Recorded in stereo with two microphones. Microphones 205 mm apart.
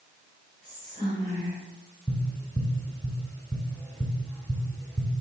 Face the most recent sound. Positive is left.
turn(degrees=5)  # may be behind; listen again after turning